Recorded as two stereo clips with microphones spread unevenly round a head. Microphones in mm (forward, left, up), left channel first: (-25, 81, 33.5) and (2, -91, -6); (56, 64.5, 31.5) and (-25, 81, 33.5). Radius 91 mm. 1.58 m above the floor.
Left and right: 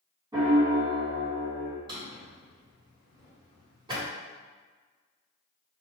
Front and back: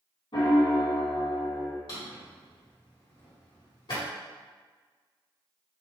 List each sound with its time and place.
0.3 s a piano: 5° right, 1.3 m
1.9 s a drawer: 10° right, 1.7 m